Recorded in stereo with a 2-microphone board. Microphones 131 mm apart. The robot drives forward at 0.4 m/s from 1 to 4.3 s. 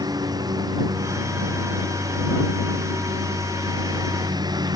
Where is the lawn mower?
30° right (ahead or behind).